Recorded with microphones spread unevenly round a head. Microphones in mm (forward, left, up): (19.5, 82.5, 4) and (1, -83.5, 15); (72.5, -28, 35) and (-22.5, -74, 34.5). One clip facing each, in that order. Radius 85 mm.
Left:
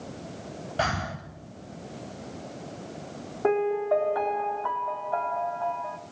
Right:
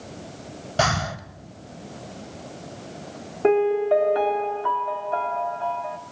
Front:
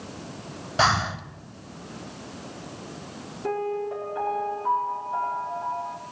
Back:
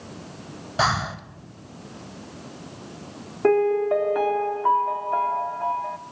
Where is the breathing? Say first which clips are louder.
Right 6 dB, front 1 dB; 65° right, 1.6 m.